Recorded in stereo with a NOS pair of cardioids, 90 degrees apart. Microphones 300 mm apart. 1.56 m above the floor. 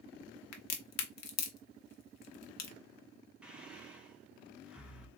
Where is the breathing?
5° right, 1.5 m.